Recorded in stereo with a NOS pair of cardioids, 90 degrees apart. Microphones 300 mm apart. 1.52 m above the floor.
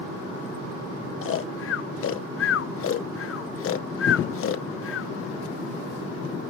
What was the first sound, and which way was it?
Snoring, 50° left.